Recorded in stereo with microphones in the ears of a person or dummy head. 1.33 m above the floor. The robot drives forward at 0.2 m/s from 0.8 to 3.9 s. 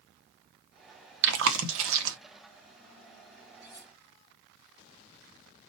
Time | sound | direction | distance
1.2 | chewing | 75° right (ahead or behind) | 0.7 m
3.6 | cutlery clinking | 30° left (ahead or behind) | 3 m